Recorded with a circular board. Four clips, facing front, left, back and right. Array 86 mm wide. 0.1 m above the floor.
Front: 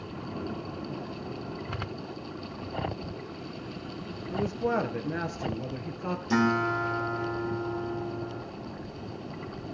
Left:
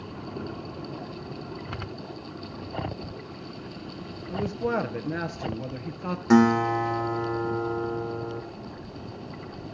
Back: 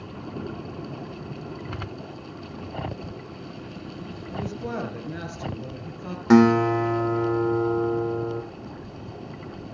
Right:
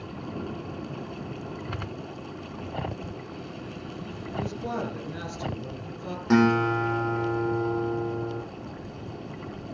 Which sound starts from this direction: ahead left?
A man speaking, at 4.3 s.